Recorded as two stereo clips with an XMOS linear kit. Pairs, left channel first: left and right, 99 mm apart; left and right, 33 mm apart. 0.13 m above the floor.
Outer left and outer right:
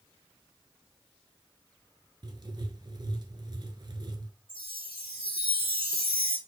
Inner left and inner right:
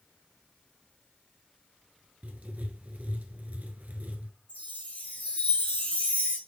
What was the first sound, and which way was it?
Writing, 50° right (ahead or behind).